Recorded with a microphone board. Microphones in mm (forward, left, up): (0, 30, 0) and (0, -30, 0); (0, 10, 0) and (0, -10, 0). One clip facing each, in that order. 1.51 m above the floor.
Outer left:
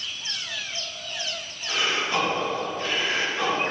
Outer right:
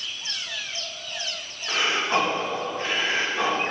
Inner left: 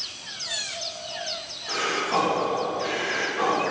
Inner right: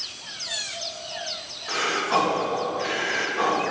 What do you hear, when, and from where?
1.7 s breathing: 35° right (ahead or behind), 1.8 m